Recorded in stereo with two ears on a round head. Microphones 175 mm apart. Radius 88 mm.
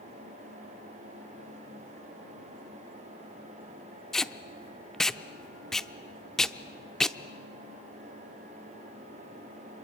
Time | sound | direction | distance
4.1 | tape being pulled | 5° left (ahead or behind) | 0.5 m